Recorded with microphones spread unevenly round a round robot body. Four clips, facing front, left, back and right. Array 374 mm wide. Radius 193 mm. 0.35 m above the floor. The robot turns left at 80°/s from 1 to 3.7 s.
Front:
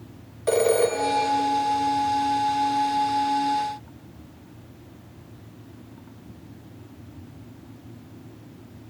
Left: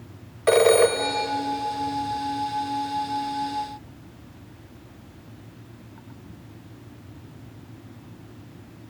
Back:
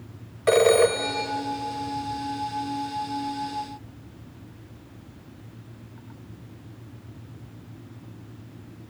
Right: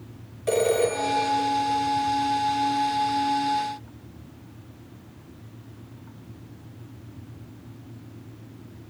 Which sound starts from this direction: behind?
A phone ringing, at 0.5 s.